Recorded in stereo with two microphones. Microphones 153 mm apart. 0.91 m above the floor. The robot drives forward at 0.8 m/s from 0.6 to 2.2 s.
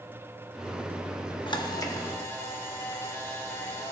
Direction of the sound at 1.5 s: 30° left (ahead or behind).